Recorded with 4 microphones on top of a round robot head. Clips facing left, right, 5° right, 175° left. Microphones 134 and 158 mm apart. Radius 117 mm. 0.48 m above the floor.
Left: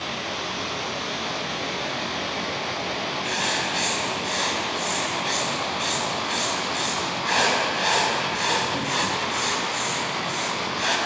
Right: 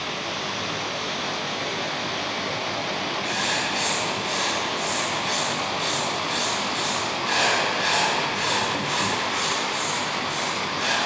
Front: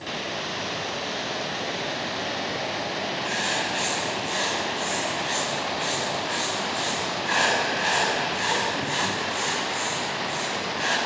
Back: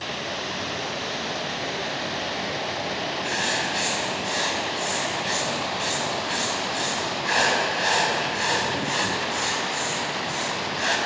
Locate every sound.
3.2 s writing: 125° left, 2.5 m